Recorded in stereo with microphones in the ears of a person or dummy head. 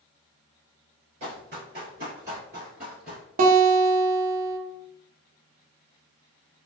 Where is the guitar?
45° right (ahead or behind), 0.7 m.